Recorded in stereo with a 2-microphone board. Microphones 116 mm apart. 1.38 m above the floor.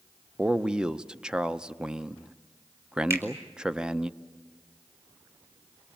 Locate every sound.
0.4 s a man speaking: 10° right (ahead or behind), 0.6 m
3.1 s a finger snap: 25° right (ahead or behind), 4 m